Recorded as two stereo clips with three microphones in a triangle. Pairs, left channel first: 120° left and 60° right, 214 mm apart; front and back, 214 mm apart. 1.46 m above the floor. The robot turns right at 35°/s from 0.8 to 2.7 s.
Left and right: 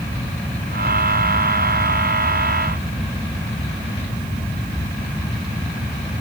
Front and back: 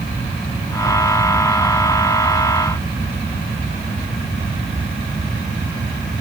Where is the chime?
I don't hear a chime.